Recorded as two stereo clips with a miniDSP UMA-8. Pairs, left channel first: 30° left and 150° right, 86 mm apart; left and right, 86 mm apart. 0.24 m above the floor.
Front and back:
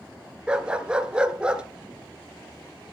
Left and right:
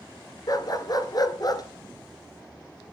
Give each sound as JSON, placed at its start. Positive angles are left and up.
{"t": 0.5, "sound": "a dog barking", "azimuth_deg": 130, "distance_m": 1.5}